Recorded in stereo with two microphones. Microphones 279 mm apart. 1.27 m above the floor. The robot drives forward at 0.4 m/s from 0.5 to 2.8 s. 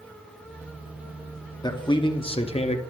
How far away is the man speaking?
About 0.8 m.